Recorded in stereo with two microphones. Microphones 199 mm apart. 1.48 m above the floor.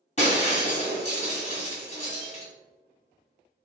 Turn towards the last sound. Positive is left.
turn(degrees=35)  # may be behind; listen again after turning